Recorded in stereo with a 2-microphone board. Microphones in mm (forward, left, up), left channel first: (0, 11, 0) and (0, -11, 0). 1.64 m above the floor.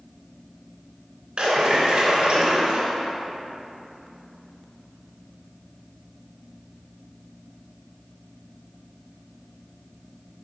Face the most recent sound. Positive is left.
turn(degrees=-55)  # may be behind; listen again after turning